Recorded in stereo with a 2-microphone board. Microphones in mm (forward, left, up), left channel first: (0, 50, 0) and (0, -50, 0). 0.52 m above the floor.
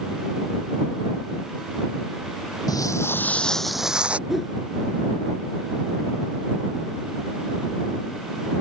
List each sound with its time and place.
2.7 s footsteps: 40° left (ahead or behind); by 4.2 s 10° right (ahead or behind)
4.3 s a whoosh: centre (ahead or behind)